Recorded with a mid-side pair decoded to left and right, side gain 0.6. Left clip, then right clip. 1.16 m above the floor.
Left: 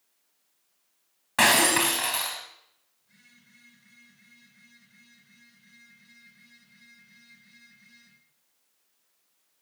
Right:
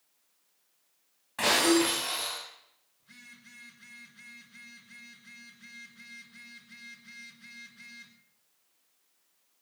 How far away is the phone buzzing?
About 4.5 m.